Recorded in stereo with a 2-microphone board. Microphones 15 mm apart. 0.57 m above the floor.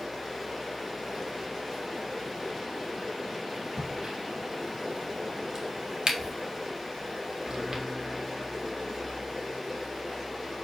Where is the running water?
20° right (ahead or behind), 6 m.